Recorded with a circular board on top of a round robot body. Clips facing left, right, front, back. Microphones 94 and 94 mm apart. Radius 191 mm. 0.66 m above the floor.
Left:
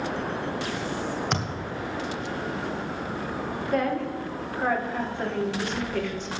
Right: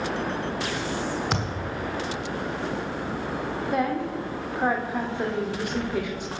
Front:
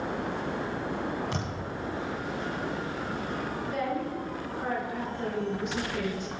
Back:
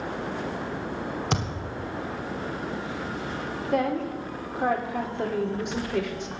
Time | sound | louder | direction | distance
1.3 | a thud | right 1 dB, back 3 dB | 175° right | 1.2 m
3.6 | a woman speaking | even, back 7 dB | 165° right | 2.5 m